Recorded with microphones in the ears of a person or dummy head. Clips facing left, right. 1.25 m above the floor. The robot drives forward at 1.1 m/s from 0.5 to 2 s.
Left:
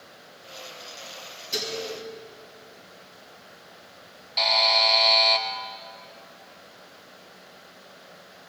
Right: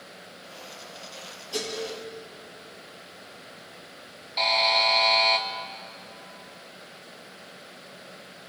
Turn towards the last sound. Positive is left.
turn(degrees=5)  # may be behind; listen again after turning